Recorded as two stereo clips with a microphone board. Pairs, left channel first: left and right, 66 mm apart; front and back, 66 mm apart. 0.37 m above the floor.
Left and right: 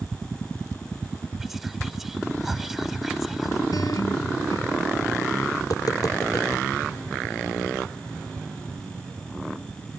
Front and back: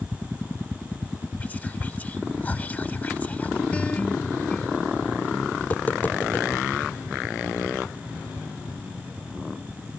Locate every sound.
1.4 s whispering: 10° right
3.7 s a guitar: 70° left
5.6 s tapping: 65° left